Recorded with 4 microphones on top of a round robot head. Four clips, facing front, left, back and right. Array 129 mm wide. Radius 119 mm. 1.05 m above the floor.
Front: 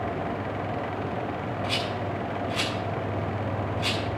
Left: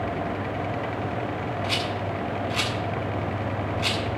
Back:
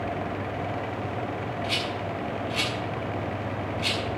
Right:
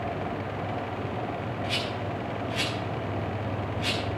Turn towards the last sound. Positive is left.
turn(degrees=45)